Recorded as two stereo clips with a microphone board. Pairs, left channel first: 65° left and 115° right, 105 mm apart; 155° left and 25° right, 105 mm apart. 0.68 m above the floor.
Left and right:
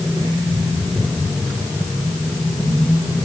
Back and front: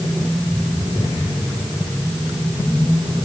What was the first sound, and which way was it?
Only background noise.